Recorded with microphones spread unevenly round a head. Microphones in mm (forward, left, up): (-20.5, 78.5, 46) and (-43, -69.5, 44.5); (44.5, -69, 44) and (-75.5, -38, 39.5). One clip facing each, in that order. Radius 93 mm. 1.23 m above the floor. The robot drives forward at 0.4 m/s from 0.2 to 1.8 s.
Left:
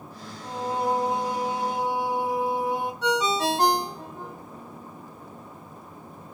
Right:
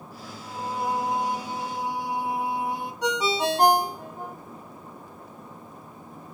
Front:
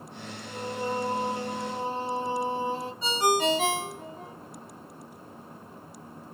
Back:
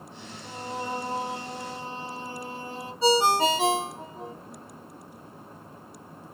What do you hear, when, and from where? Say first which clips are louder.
0.4 s singing: left 3 dB, front 2 dB; 120° left, 1.3 m; by 2.9 s 140° left, 1.6 m
3.0 s a ringtone: even, back 4 dB; 165° right, 0.5 m